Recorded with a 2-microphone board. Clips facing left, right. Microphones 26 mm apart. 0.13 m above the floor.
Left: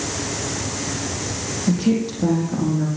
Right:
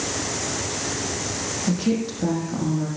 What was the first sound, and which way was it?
A woman speaking, 5° right (ahead or behind).